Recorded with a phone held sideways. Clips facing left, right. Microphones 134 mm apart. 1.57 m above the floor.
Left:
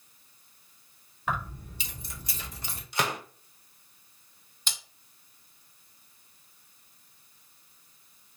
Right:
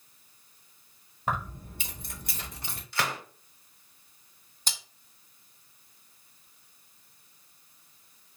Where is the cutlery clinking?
40° right (ahead or behind), 1.9 m.